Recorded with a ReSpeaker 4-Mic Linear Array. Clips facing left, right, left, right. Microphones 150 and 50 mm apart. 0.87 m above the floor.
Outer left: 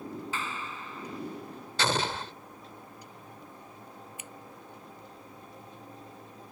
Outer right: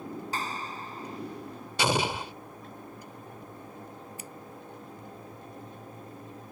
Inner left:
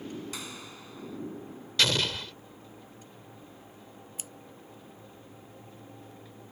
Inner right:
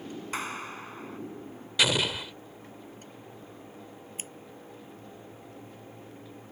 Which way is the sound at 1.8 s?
10° right (ahead or behind).